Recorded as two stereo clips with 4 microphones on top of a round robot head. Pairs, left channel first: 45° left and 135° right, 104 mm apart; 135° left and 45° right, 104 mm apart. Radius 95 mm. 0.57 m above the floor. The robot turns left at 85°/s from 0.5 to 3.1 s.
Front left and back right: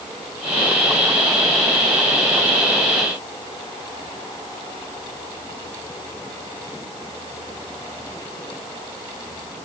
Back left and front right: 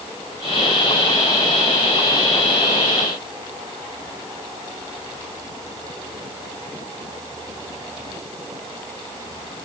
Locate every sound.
Only background noise.